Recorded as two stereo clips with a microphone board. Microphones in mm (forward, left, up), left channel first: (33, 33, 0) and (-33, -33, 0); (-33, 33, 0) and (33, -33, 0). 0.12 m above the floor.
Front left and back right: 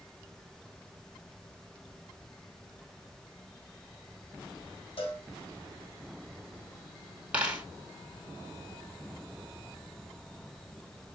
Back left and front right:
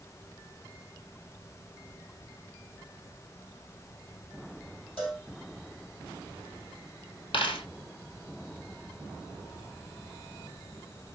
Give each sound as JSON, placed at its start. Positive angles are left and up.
{"t": 5.0, "sound": "a cowbell", "azimuth_deg": 45, "distance_m": 3.0}
{"t": 7.3, "sound": "a dropped coin", "azimuth_deg": 150, "distance_m": 1.4}